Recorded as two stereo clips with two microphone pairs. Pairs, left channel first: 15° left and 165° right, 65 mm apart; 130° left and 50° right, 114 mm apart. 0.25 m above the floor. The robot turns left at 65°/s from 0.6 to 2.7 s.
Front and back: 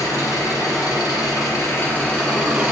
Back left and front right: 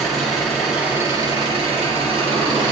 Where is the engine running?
40° left, 1.5 m; by 2.7 s 95° right, 1.5 m.